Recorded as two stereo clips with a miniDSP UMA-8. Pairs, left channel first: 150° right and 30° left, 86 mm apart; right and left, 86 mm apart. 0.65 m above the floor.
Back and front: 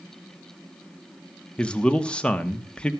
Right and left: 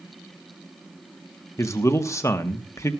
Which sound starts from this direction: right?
A man speaking, at 1.6 s.